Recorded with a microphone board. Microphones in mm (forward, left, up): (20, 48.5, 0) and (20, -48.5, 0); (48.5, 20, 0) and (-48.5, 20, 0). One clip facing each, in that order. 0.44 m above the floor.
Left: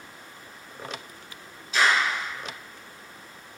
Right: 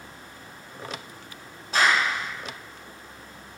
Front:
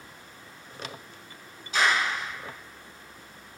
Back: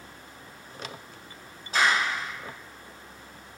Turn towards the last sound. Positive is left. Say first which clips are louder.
# right 1 dB, back 1 dB
turn(degrees=-135)